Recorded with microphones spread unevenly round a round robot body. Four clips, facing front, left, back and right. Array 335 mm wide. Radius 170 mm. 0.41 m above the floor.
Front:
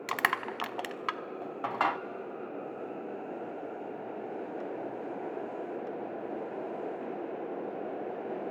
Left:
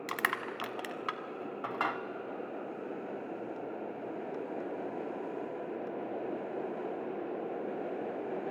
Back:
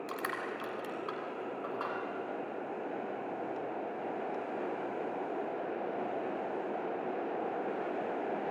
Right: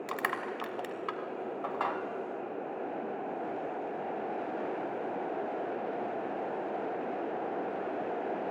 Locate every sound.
0.1 s crushing: 25° left, 0.8 m